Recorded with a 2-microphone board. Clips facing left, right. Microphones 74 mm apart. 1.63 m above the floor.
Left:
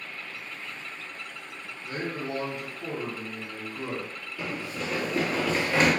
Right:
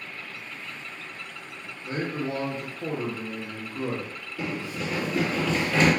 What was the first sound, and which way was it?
A man speaking, 30° right (ahead or behind).